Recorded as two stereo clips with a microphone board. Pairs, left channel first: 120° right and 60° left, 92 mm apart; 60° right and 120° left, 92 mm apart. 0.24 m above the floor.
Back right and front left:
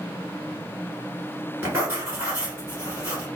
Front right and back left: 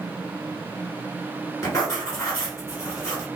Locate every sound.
1.6 s writing: 5° right, 1.6 m